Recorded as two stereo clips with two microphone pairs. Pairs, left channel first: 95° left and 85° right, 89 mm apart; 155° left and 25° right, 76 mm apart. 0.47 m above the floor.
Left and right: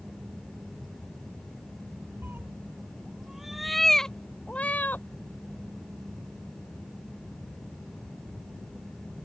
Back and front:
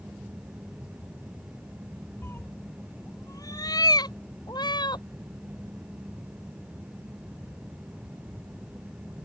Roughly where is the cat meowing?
Behind right.